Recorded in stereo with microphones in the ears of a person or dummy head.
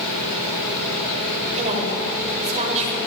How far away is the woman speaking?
About 7.5 m.